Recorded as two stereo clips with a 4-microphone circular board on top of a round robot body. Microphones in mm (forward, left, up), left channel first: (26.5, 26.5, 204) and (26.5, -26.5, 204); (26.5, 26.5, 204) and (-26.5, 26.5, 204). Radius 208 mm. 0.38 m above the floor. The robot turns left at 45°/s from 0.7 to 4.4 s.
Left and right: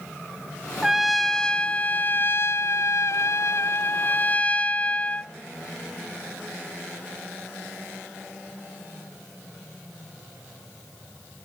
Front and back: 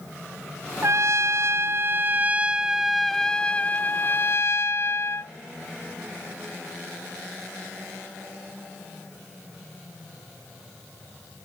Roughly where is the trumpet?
Behind.